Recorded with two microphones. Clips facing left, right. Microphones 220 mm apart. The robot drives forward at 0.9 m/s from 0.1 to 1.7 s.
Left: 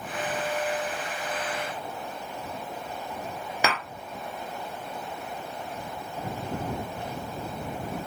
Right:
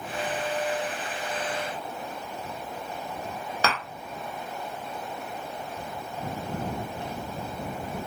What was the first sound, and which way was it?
Tapping, 15° left (ahead or behind).